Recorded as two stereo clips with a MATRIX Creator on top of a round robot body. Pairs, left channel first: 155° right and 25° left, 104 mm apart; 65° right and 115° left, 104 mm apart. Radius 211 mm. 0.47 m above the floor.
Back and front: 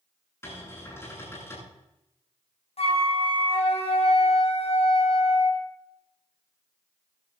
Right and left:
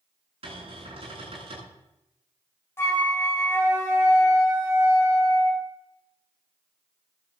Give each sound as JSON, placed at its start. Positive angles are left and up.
{"t": 0.4, "sound": "a cupboard door", "azimuth_deg": 140, "distance_m": 9.0}
{"t": 2.8, "sound": "a flute", "azimuth_deg": -135, "distance_m": 3.0}